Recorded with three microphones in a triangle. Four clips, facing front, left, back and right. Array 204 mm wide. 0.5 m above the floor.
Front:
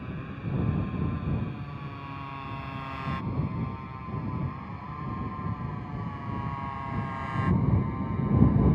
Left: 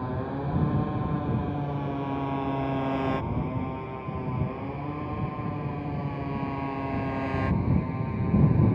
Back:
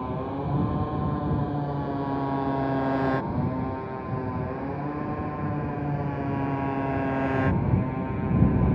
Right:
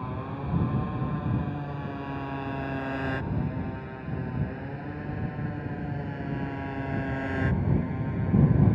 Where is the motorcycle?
150° left; by 8.8 s 170° left.